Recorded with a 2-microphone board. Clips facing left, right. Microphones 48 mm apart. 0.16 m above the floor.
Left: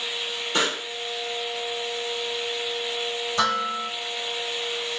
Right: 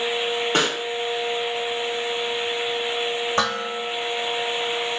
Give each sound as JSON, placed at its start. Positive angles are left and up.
{"t": 0.5, "sound": "a pop", "side_deg": -40, "distance_m": 4.0}
{"t": 3.4, "sound": "dishes clattering", "side_deg": -45, "distance_m": 6.5}